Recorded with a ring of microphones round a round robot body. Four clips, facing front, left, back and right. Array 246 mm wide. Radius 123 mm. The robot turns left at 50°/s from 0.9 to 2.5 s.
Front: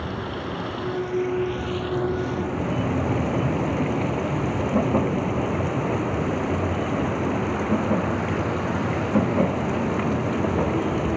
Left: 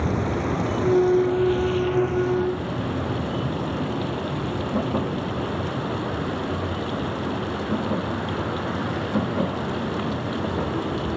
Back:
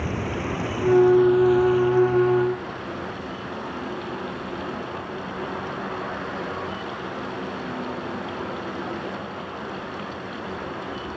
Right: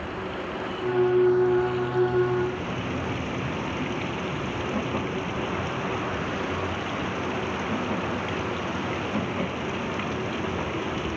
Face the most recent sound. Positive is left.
turn(degrees=20)